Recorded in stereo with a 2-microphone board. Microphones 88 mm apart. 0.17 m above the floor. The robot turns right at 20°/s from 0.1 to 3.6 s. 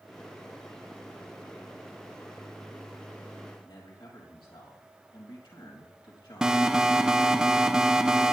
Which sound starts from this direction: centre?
An alarm, at 6.4 s.